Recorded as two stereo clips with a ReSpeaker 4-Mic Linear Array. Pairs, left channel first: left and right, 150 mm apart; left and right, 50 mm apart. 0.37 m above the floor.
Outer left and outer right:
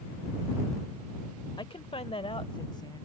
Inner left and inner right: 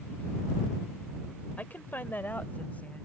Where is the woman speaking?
35° left (ahead or behind); by 3.1 s 25° left (ahead or behind).